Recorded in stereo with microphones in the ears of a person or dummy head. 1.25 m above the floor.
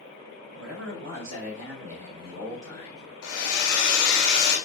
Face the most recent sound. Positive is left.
turn(degrees=60)  # may be behind; listen again after turning